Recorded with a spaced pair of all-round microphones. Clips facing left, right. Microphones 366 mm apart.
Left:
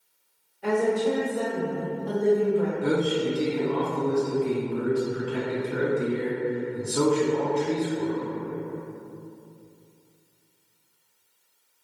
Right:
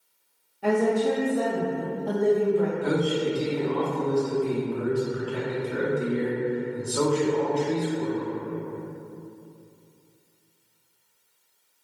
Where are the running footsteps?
I don't hear running footsteps.